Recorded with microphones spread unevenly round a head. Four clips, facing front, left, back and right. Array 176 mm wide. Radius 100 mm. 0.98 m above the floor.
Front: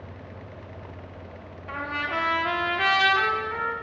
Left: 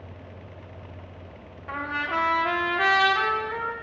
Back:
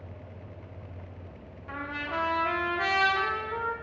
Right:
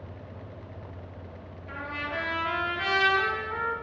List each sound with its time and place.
1.7 s a trumpet: 65° left, 1.3 m